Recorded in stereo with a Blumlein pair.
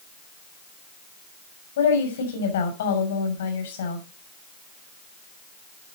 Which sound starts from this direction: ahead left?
A woman speaking, at 1.8 s.